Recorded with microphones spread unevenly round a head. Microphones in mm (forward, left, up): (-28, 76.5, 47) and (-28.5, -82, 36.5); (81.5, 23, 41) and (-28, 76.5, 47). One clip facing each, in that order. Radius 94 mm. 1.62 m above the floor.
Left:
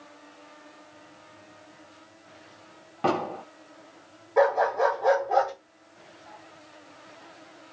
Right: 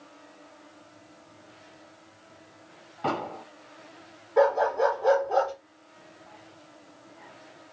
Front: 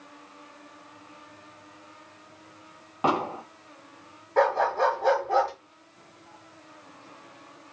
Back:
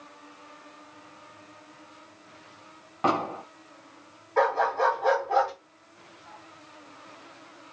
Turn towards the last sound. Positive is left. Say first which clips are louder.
# even, front 1 dB
turn(degrees=15)